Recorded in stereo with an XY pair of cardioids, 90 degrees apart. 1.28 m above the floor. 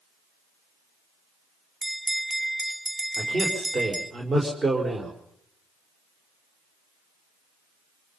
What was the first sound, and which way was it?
A bell, 15° right.